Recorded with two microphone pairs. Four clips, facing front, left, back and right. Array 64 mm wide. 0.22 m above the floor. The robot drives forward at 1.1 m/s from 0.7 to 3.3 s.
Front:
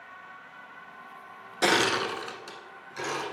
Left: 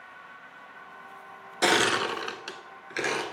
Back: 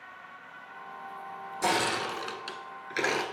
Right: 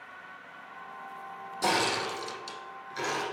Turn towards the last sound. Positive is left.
turn(degrees=150)